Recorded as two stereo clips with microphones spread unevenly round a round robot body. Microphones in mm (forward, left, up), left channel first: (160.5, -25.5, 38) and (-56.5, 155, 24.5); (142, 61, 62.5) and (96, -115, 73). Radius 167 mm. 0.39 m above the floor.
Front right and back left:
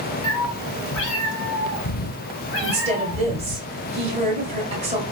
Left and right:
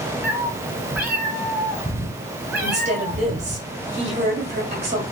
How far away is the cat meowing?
About 1.2 m.